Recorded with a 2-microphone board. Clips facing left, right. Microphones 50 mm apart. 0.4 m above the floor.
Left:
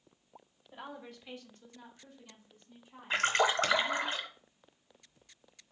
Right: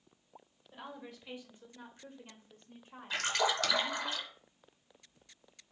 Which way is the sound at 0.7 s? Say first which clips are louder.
Left 1 dB; 10° left (ahead or behind).